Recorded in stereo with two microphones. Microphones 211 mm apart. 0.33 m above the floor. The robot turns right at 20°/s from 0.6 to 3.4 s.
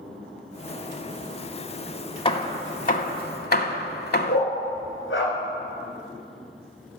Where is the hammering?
25° left (ahead or behind), 0.8 m; by 4.5 s 50° left (ahead or behind), 0.8 m.